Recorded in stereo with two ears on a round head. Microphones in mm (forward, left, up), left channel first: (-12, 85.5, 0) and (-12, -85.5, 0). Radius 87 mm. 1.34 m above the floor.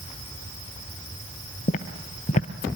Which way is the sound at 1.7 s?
40° left (ahead or behind).